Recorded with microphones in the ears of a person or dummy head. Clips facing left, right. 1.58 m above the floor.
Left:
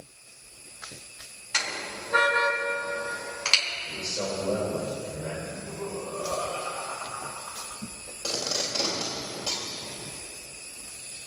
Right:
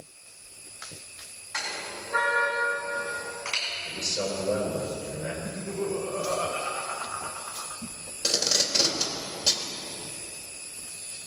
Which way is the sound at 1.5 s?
45° left (ahead or behind).